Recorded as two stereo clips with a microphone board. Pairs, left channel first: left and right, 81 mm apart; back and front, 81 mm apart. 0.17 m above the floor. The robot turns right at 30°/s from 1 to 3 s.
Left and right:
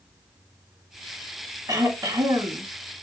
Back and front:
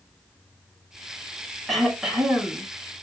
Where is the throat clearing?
90° right, 1.0 m; by 2.6 s 65° right, 1.0 m.